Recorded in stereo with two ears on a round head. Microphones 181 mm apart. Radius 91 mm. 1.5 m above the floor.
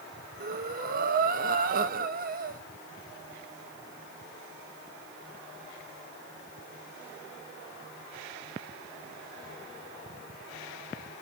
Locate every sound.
0.4 s breathing: 45° right (ahead or behind), 1.1 m